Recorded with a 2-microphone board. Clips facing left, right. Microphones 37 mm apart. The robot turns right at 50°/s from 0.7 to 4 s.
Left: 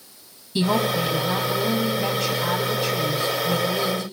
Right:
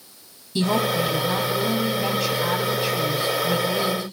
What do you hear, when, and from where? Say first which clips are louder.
0.6 s a woman speaking: even; 20° left (ahead or behind), 1.4 m; by 4.0 s 20° right (ahead or behind), 1.4 m